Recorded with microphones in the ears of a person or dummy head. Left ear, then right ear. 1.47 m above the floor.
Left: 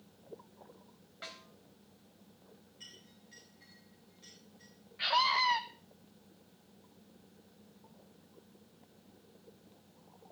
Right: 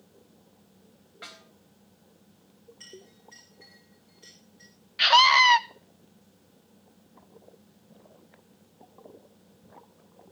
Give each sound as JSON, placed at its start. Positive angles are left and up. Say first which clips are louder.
{"t": 1.2, "sound": "a snare drum", "louder": "right 2 dB", "side_deg": -10, "distance_m": 4.0}
{"t": 2.8, "sound": "a clink", "louder": "right 5 dB", "side_deg": -30, "distance_m": 4.5}
{"t": 5.0, "sound": "a scream", "louder": "right 12 dB", "side_deg": -75, "distance_m": 0.7}